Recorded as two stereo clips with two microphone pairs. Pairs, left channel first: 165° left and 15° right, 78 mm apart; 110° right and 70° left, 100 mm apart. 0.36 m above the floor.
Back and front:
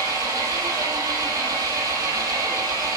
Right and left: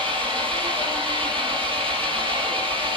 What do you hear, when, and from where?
0.0 s an engine running: 40° left, 3.5 m